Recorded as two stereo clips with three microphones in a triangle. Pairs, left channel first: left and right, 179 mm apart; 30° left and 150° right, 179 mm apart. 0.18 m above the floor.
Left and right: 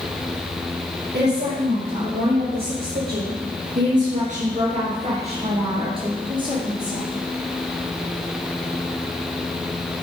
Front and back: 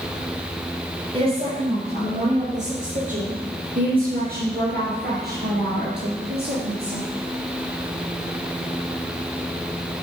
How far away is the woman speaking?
About 3.5 m.